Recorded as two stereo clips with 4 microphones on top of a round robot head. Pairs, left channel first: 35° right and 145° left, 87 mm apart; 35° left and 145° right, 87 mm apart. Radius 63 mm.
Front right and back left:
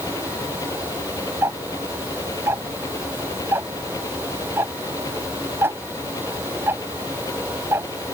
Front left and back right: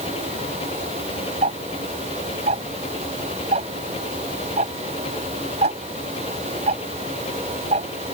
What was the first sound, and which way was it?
An engine running, 20° left.